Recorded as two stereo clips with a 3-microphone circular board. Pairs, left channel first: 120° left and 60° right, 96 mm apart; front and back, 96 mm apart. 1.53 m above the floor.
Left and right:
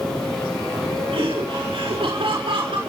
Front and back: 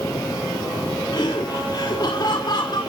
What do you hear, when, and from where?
1.1 s laughter: 40° right, 4.5 m